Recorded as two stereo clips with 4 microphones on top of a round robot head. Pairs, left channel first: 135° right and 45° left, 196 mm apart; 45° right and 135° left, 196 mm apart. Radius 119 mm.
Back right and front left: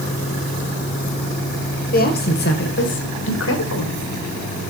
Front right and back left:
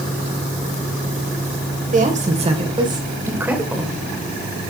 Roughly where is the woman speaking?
Behind.